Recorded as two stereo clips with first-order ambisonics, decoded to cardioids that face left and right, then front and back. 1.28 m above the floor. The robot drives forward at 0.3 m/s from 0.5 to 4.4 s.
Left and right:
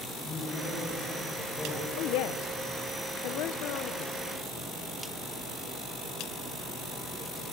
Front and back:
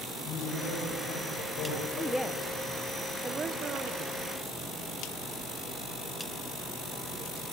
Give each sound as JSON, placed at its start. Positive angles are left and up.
{"t": 0.2, "sound": "a man speaking", "azimuth_deg": 15, "distance_m": 6.0}
{"t": 2.0, "sound": "a woman speaking", "azimuth_deg": 80, "distance_m": 0.9}